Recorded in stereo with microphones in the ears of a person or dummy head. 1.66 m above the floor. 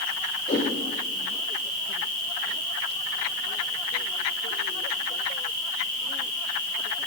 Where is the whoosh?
20° left (ahead or behind), 1.5 m.